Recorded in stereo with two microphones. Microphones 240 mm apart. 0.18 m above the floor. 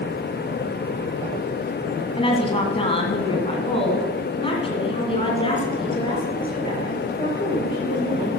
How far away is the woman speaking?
About 1.5 m.